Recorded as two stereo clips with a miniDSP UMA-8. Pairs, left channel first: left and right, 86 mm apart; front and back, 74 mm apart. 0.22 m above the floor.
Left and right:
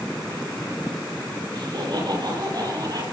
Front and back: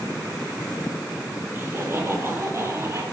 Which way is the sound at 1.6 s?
115° right.